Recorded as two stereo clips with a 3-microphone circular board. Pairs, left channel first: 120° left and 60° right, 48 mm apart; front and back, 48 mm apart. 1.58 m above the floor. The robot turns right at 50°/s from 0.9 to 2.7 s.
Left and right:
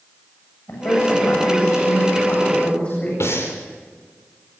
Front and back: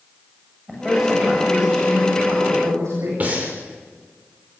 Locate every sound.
0.7 s a woman speaking: 95° left, 8.5 m; by 3.1 s 175° right, 8.5 m
3.2 s breathing: 125° left, 6.5 m